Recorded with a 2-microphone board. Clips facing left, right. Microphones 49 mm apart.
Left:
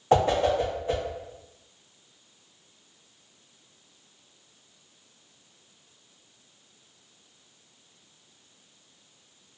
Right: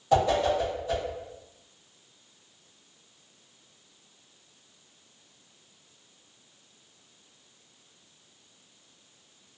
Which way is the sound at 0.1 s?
35° left (ahead or behind).